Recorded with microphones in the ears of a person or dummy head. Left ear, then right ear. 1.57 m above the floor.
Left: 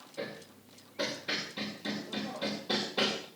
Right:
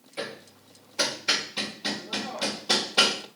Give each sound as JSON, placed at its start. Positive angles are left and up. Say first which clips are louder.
{"t": 0.2, "sound": "hammering", "louder": "right 5 dB", "side_deg": -50, "distance_m": 3.0}